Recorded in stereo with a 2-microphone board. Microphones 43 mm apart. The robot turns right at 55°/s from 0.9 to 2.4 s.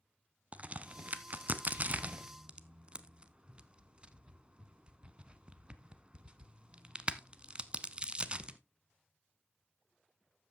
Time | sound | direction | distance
0.5 | a crack | 35° right (ahead or behind) | 0.7 m